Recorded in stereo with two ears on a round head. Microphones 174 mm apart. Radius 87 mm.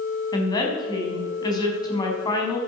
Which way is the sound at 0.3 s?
20° left (ahead or behind).